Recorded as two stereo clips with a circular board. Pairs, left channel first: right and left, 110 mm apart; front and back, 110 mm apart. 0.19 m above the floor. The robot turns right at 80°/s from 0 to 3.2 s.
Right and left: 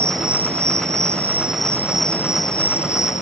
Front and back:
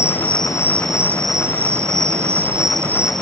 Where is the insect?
20° left; by 3.2 s 85° right.